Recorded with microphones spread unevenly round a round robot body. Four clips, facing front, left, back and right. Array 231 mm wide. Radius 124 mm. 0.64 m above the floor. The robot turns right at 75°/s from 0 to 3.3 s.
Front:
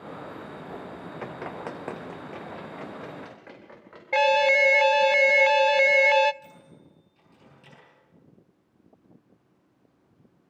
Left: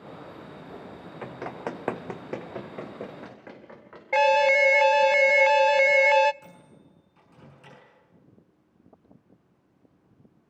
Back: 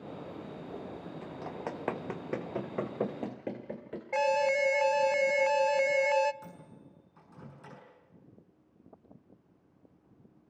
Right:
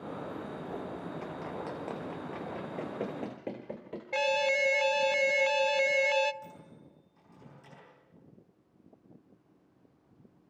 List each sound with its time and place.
1.2 s running footsteps: 35° left, 2.5 m; by 4.0 s 140° right, 3.5 m
4.1 s an alarm: 45° left, 0.6 m
6.4 s a microwave: 165° left, 7 m